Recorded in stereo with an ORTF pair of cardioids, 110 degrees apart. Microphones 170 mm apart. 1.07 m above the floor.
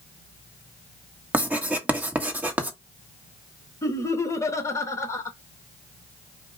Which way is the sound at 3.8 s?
15° left.